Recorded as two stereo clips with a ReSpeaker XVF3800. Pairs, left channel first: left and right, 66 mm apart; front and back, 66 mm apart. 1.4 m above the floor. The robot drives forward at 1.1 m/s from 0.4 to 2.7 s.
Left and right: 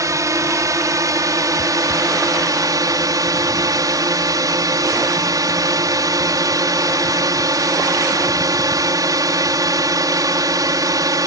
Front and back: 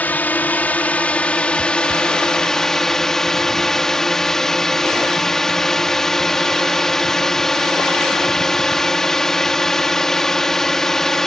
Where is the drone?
65° right; by 11.3 s 85° right.